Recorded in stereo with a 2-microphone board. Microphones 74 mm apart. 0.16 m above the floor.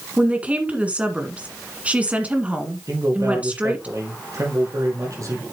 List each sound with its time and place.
0.2 s a woman speaking: 20° right (ahead or behind), 1.8 m
2.9 s a man speaking: 50° right (ahead or behind), 4 m